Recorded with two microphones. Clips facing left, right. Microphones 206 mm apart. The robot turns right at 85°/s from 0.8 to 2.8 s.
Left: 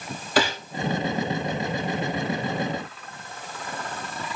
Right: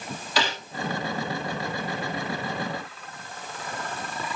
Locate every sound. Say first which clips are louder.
0.4 s a gunshot: left 5 dB; 50° left (ahead or behind), 4.5 m